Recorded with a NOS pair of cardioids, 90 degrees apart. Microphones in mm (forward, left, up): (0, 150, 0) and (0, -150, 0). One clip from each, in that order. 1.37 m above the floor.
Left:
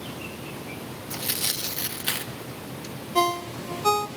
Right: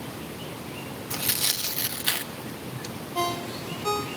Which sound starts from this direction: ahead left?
A ringtone, at 3.1 s.